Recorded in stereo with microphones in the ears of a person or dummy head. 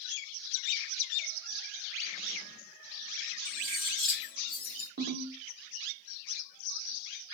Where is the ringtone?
55° right (ahead or behind), 0.9 m.